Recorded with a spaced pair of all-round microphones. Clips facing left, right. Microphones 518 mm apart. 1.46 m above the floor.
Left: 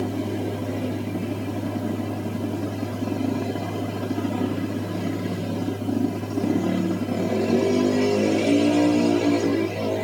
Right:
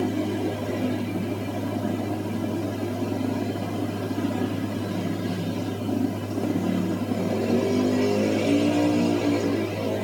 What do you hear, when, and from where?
0.0 s a fan: 35° right (ahead or behind), 1.9 m